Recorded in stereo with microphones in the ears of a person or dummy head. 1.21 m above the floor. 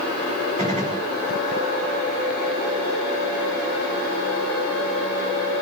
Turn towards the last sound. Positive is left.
turn(degrees=-25)  # may be behind; listen again after turning